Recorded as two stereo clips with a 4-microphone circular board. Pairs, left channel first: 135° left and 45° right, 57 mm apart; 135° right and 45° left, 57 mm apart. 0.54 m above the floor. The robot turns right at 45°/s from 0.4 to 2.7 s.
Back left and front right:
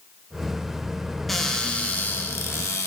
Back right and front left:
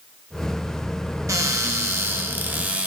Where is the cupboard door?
45° left, 1.0 m; by 2.9 s 110° left, 1.0 m.